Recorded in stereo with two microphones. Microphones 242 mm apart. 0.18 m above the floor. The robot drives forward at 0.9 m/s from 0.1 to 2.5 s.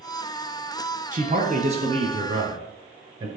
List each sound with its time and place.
1.1 s a man speaking: 35° right (ahead or behind), 1.2 m; by 3.3 s 20° right (ahead or behind), 2.0 m